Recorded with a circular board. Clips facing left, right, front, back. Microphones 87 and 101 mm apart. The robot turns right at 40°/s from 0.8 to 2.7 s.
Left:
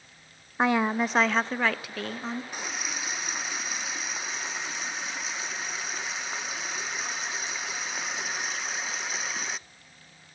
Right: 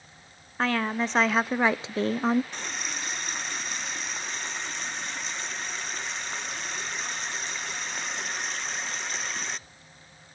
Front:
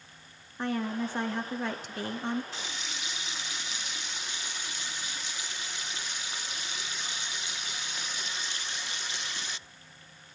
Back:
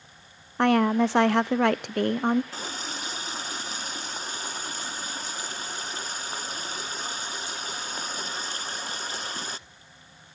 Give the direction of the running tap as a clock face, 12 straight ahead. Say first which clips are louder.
Even, back 5 dB; 6 o'clock.